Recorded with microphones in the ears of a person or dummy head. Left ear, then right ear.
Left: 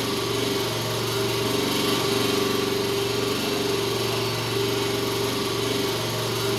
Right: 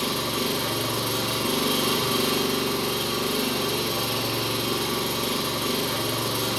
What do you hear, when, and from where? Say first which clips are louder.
0.0 s an engine running: left 1 dB; 55° right (ahead or behind), 1.3 m